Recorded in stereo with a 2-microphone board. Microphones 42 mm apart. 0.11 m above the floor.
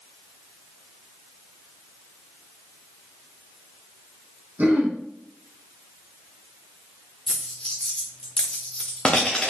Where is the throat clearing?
40° right (ahead or behind), 3 m.